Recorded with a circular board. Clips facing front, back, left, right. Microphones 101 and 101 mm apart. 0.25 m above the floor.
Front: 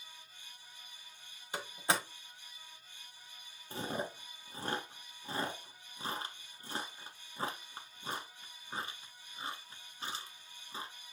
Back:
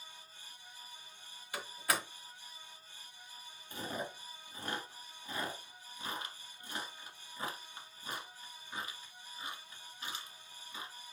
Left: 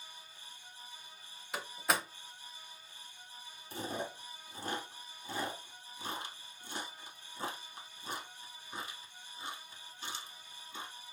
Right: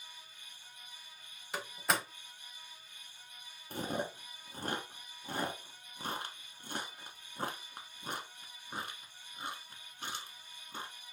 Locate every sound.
1.5 s a door slam: 5° left, 0.9 m
3.7 s chewing: 55° right, 1.1 m